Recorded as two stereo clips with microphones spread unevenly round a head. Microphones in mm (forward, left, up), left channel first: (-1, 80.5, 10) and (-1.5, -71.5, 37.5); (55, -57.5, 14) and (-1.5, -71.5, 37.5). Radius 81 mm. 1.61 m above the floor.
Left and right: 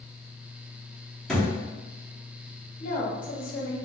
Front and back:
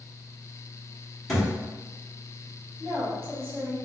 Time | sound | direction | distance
1.3 | a thud | 160° right | 1.1 m
2.8 | a woman speaking | 125° left | 1.4 m